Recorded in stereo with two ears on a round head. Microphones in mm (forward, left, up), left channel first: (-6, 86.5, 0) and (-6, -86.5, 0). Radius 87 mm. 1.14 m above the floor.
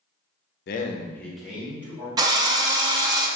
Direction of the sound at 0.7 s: 60° left (ahead or behind).